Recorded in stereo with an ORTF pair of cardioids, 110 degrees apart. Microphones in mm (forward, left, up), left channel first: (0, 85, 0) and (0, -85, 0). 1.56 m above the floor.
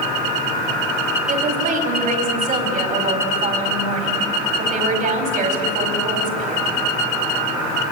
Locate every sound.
1.3 s a woman speaking: 55° right, 4.5 m